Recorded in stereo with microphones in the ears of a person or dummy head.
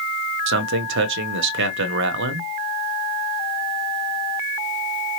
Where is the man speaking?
65° right (ahead or behind), 0.9 m.